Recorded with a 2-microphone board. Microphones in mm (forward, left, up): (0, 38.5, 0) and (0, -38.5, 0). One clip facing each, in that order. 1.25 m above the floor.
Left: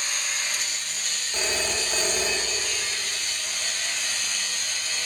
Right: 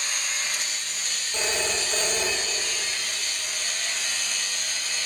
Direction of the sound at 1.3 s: 10° left (ahead or behind).